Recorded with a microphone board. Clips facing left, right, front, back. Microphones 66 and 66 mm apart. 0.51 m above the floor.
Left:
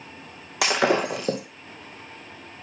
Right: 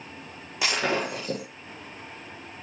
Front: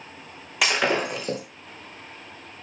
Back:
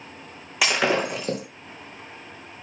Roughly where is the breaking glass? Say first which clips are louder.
Left 5 dB, back 1 dB; left.